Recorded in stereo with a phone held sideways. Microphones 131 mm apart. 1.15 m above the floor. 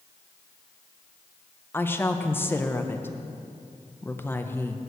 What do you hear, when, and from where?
1.7 s a woman speaking: 15° left (ahead or behind), 0.6 m